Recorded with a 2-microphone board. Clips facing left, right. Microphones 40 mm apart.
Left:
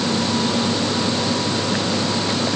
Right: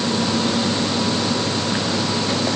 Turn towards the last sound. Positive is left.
No sound to turn to.